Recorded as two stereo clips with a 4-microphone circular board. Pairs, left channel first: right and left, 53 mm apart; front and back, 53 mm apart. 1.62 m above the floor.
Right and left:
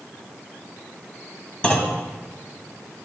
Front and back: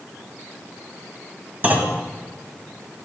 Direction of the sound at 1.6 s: 150° right.